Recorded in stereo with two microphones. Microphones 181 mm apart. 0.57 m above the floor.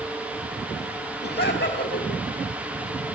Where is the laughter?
65° left (ahead or behind), 4.5 m.